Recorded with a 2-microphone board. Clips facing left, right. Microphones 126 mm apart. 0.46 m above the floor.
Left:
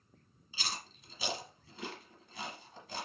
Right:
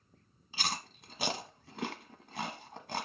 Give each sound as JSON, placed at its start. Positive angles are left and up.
{"t": 0.5, "sound": "chewing", "side_deg": -65, "distance_m": 1.1}